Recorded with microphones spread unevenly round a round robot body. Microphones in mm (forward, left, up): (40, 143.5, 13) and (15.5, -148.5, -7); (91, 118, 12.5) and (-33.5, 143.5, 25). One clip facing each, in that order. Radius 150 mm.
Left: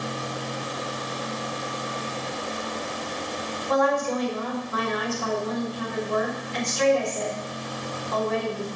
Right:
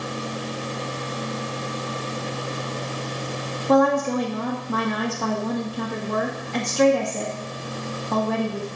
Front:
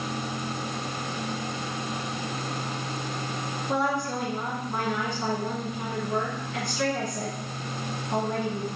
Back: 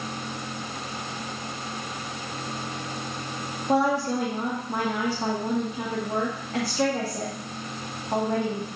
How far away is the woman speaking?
About 1.8 m.